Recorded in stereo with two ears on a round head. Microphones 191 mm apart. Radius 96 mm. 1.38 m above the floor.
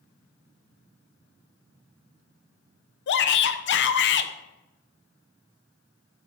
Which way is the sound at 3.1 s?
55° left (ahead or behind).